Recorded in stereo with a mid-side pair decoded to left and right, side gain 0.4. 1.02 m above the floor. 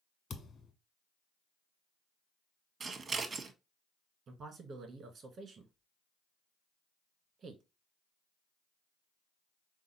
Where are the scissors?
45° right, 0.7 m.